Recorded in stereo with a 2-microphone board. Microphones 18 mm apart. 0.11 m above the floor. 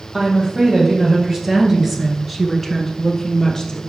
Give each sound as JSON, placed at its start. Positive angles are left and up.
{"t": 0.1, "sound": "a woman speaking", "side_deg": -30, "distance_m": 3.0}